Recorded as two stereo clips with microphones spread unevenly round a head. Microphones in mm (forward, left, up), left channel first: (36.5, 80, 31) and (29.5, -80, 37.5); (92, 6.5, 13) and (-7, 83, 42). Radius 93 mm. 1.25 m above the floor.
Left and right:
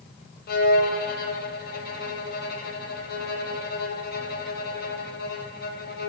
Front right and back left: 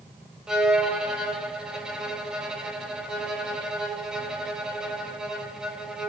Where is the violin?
60° left, 2.5 m.